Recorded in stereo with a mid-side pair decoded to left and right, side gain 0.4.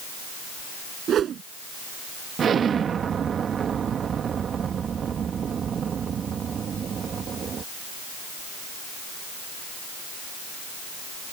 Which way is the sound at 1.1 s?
65° right.